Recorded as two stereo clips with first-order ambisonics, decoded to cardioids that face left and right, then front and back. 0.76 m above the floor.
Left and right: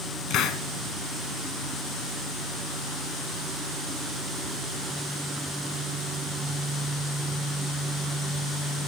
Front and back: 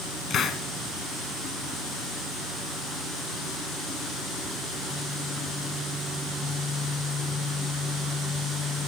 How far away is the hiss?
About 1.0 m.